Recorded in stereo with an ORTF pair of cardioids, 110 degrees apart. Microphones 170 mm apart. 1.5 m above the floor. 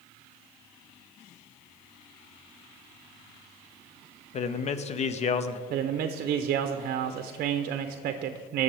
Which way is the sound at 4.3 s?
40° left.